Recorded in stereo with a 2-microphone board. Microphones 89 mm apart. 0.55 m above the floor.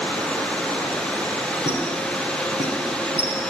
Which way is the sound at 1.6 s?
85° right.